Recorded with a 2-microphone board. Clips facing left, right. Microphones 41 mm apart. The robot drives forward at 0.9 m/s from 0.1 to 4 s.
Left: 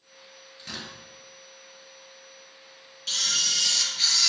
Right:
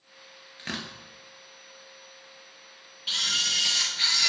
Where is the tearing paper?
50° right (ahead or behind), 1.9 m.